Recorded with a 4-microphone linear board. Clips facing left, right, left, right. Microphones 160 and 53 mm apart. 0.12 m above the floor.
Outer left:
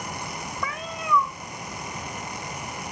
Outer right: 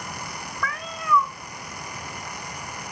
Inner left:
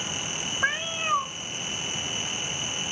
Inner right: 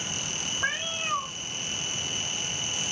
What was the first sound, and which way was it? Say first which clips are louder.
A cat meowing: outer right 2 dB, inner left 4 dB; 20° left (ahead or behind).